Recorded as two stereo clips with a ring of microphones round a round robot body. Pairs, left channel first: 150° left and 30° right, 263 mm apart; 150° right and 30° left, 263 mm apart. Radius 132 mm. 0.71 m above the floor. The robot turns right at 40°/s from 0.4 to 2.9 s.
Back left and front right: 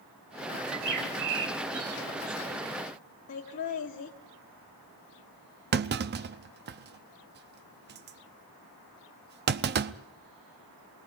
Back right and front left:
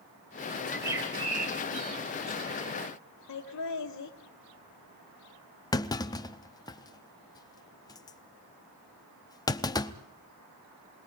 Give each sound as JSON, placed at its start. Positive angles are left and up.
{"t": 0.7, "sound": "a bird", "azimuth_deg": -60, "distance_m": 2.5}
{"t": 3.3, "sound": "laughter", "azimuth_deg": -170, "distance_m": 1.7}
{"t": 5.7, "sound": "a clunk", "azimuth_deg": -75, "distance_m": 0.6}